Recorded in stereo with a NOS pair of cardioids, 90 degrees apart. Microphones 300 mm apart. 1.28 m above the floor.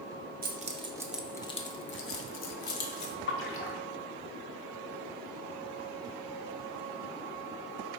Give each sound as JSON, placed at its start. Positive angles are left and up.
{"t": 0.4, "sound": "keys jangling", "azimuth_deg": -30, "distance_m": 0.8}
{"t": 3.3, "sound": "a splash", "azimuth_deg": 45, "distance_m": 1.0}